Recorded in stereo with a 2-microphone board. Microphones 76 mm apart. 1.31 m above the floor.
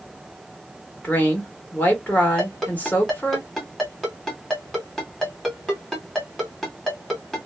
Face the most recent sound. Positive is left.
turn(degrees=5)  # may be behind; listen again after turning